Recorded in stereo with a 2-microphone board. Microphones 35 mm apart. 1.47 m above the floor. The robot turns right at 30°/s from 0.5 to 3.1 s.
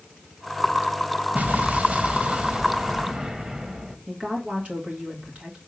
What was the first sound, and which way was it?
An explosion, 85° right.